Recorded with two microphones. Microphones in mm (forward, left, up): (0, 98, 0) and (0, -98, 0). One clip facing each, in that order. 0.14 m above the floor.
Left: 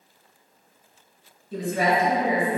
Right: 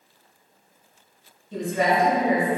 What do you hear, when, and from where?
1.5 s a woman speaking: 5° left (ahead or behind), 1.7 m